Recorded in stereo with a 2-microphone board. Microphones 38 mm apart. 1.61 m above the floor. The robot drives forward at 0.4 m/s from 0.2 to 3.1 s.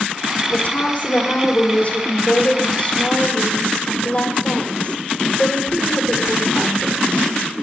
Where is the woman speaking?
45° left (ahead or behind), 3.5 m; by 7.3 s 35° left (ahead or behind), 4 m.